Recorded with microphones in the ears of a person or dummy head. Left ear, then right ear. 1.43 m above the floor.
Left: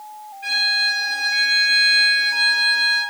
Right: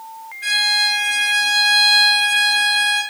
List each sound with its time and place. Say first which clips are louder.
0.4 s a violin: right 2 dB; 40° right (ahead or behind), 1.2 m